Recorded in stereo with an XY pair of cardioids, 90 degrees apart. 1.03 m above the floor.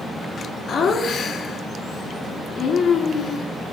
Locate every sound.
0.7 s laughter: 65° left, 2.5 m